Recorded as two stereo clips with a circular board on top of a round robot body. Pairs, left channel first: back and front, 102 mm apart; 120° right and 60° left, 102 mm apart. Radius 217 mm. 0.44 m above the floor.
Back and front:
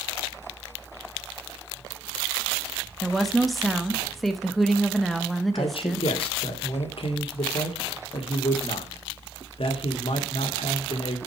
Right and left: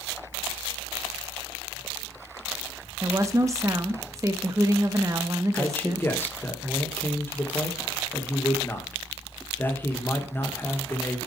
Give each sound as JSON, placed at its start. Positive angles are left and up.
{"t": 3.0, "sound": "a woman speaking", "azimuth_deg": 90, "distance_m": 1.4}
{"t": 5.5, "sound": "a man speaking", "azimuth_deg": 170, "distance_m": 2.5}